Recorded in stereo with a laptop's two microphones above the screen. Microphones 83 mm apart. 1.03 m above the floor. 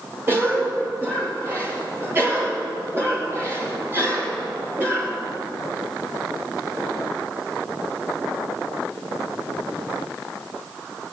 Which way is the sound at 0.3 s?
30° right (ahead or behind).